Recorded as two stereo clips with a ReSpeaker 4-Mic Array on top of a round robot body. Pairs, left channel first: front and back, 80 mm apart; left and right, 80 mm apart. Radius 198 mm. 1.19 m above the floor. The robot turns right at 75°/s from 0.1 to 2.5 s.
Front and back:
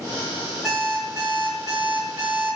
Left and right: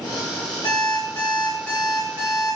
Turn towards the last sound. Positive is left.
turn(degrees=-130)